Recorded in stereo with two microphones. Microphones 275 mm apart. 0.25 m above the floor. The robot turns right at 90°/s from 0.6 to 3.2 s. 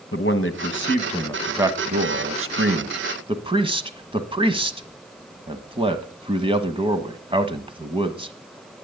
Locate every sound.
0.1 s a man speaking: 50° left (ahead or behind), 1.4 m; by 8.3 s 20° right (ahead or behind), 1.4 m